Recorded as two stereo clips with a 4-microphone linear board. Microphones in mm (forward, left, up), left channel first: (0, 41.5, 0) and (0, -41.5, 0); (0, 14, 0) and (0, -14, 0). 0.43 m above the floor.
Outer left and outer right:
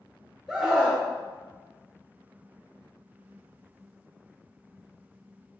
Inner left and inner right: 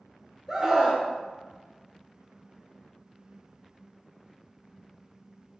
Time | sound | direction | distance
0.5 | a scream | 5° right (ahead or behind) | 1.1 m